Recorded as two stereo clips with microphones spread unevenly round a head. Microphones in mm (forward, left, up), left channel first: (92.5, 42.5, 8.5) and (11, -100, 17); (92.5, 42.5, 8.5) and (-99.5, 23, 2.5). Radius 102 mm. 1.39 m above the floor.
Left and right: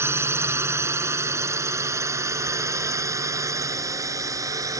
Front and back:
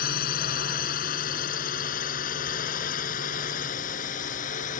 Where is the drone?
45° right; by 4.8 s 50° right.